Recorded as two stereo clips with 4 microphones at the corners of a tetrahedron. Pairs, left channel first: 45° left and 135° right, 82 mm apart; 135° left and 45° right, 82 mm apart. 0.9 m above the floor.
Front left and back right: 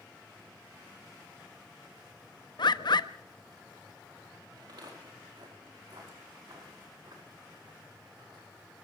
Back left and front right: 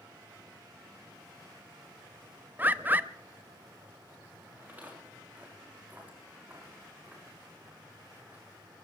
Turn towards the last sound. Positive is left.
turn(degrees=-115)